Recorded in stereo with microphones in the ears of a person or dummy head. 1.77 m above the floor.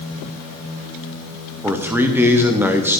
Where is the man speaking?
10° right (ahead or behind), 1.1 m.